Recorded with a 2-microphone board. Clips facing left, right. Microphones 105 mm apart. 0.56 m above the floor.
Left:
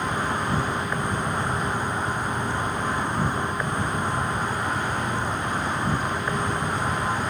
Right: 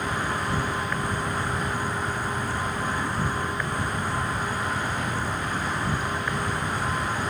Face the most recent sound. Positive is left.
turn(degrees=20)  # may be behind; listen again after turning